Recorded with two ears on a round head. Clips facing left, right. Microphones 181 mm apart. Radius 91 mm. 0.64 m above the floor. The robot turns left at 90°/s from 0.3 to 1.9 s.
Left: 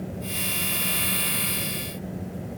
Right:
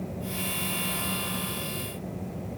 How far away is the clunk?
No clunk in this recording.